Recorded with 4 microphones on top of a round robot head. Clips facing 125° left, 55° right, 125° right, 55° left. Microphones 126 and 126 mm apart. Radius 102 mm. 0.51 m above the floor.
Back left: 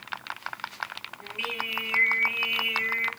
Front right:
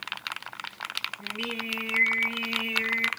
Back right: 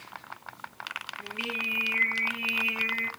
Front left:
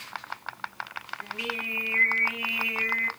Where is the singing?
80° right, 1.6 m.